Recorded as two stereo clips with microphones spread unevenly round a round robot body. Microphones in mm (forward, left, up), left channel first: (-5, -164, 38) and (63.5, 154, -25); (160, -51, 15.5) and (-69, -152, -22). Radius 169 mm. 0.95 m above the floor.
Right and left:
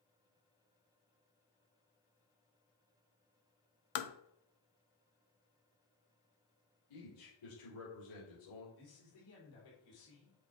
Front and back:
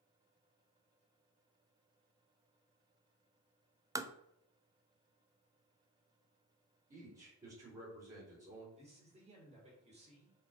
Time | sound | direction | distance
4.0 | tapping | 80° right | 0.7 m
6.9 | a man speaking | 100° right | 3.5 m
8.8 | a man speaking | 95° right | 3.5 m